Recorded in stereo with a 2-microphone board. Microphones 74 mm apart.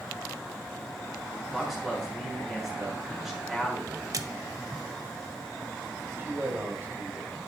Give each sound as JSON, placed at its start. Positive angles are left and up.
{"t": 1.5, "sound": "a man speaking", "side_deg": 0, "distance_m": 4.0}
{"t": 4.1, "sound": "a splash", "side_deg": -50, "distance_m": 0.8}
{"t": 6.2, "sound": "a man speaking", "side_deg": -30, "distance_m": 4.0}